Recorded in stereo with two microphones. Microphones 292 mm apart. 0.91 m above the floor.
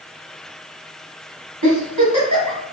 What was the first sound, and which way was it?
A giggle, 80° right.